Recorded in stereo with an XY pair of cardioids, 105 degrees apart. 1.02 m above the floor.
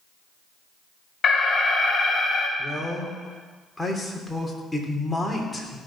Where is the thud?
No thud in this recording.